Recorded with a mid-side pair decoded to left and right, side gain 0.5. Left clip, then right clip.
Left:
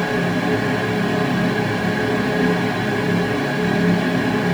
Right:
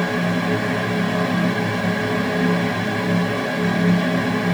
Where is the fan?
5° left, 1.5 m.